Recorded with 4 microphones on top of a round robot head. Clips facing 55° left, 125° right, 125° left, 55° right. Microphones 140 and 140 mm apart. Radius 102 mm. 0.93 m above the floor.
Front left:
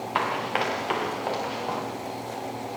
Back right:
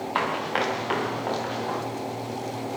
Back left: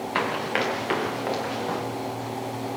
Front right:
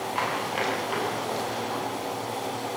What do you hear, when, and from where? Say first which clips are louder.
0.1 s running footsteps: even, back left 4 dB; 140° left, 7.5 m; by 1.8 s 135° left, 8.5 m